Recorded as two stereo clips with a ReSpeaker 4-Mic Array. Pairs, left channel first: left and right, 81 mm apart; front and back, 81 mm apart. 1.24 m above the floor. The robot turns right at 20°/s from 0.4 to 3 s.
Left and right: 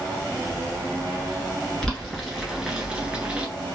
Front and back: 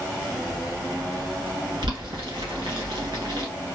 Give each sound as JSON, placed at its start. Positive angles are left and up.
{"t": 1.8, "sound": "boiling", "azimuth_deg": 170, "distance_m": 1.8}